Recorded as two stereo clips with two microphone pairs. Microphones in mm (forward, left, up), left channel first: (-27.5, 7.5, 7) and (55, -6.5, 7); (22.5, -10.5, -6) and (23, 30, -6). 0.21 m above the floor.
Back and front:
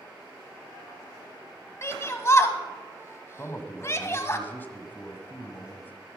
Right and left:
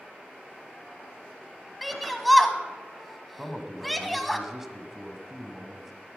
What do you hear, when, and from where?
1.8 s a shout: straight behind, 1.3 m
3.4 s a man speaking: 155° left, 1.3 m